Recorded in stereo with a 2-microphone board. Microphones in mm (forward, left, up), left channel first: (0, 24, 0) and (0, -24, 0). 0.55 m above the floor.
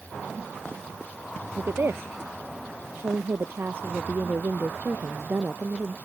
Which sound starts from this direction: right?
A woman speaking, at 1.6 s.